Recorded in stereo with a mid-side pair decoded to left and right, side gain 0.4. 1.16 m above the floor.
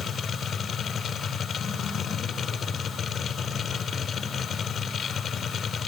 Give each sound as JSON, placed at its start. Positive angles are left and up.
{"t": 0.0, "sound": "a machine running", "azimuth_deg": 60, "distance_m": 2.5}